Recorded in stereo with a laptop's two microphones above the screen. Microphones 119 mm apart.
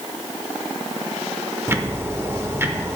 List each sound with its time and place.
1.7 s ticking: 20° right (ahead or behind), 0.6 m